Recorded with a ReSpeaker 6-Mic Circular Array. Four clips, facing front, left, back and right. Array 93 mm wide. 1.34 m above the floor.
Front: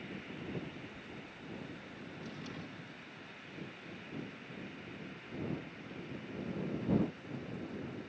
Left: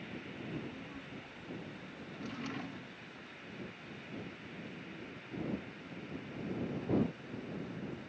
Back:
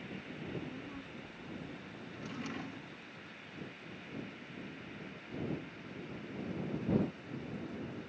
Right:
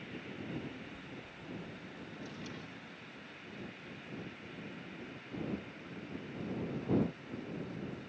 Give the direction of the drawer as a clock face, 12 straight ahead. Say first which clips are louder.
Left 6 dB, back 5 dB; 8 o'clock.